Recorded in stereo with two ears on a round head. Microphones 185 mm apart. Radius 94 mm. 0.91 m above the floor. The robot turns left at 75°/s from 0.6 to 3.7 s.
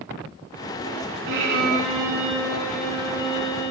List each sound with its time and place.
1.3 s a violin: 105° right, 3 m; by 3.7 s 75° left, 3 m